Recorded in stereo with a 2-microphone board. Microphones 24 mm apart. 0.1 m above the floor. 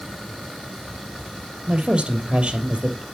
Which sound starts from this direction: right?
A woman speaking, at 1.7 s.